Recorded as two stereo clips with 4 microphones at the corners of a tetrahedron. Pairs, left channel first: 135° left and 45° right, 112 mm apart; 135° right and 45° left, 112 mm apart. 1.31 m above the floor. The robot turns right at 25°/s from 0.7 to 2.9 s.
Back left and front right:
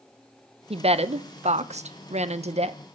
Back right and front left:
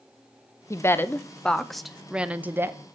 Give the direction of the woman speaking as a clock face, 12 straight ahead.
2 o'clock.